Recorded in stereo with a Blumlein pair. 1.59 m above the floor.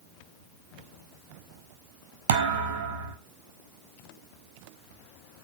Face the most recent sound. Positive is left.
turn(degrees=-60)